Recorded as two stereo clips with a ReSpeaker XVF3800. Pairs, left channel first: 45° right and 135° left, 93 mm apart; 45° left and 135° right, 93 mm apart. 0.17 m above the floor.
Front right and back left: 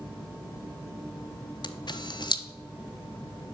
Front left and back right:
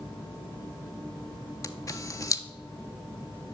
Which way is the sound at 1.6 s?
5° right.